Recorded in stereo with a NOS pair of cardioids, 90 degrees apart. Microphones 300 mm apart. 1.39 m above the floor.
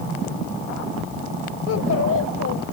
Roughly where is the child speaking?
Ahead left.